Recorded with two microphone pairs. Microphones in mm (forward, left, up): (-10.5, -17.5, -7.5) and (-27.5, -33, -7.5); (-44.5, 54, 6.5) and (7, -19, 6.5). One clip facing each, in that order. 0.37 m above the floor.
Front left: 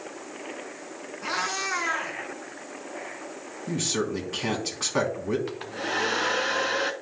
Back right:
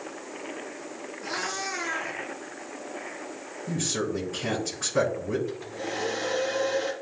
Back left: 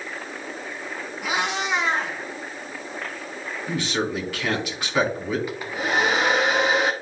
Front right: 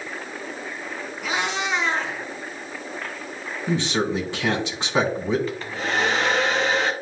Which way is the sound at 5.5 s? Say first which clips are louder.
Front left 3 dB, back left 1 dB; 50° left.